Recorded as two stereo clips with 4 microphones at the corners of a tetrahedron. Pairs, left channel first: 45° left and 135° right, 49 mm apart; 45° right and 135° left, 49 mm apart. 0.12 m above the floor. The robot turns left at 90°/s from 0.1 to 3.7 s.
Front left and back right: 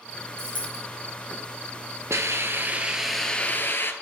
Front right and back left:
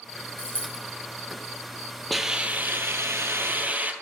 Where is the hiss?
135° right, 0.8 m; by 3.9 s 80° left, 0.8 m.